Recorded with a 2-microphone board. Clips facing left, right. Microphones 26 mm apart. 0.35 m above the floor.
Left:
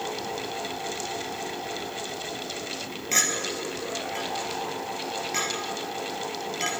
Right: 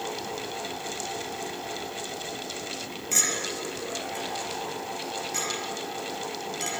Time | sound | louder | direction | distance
3.1 | a clink | left 2 dB | 25° left (ahead or behind) | 4 m